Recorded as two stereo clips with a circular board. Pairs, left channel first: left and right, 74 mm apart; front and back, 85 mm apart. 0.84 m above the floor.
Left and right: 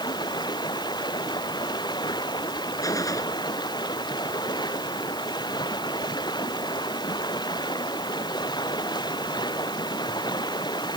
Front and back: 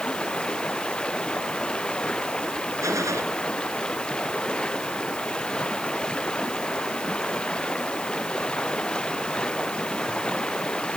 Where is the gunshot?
130° left.